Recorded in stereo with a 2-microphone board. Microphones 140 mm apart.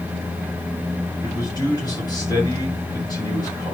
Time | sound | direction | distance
1.2 | a man speaking | 30° left (ahead or behind) | 6.5 m